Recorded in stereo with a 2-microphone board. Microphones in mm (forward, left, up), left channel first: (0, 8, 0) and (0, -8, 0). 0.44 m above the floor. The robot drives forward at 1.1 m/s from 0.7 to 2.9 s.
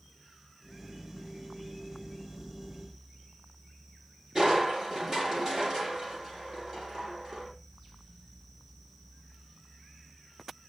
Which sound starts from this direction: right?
Crushing, at 4.3 s.